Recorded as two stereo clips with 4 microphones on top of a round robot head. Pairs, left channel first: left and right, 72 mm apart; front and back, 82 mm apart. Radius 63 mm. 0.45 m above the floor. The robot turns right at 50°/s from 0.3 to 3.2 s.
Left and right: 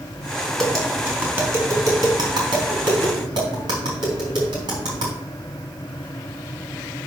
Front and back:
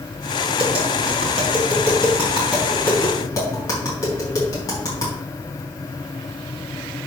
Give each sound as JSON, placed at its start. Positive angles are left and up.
{"t": 0.6, "sound": "tapping", "azimuth_deg": 175, "distance_m": 4.0}